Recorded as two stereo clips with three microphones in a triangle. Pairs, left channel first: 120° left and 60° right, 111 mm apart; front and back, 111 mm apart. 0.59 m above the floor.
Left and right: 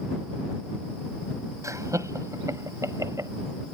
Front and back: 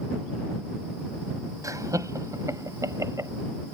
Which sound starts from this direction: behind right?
Laughter, at 1.6 s.